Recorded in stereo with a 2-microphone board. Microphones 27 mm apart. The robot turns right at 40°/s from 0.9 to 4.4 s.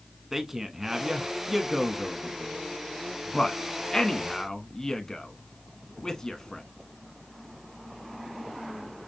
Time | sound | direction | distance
0.3 | a man speaking | 15° right (ahead or behind) | 1.0 m